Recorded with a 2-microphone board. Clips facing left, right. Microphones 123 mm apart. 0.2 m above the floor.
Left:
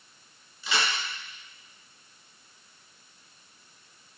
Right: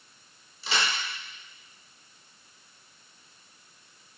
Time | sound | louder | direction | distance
0.6 | a crack | even | 30° right (ahead or behind) | 2.5 m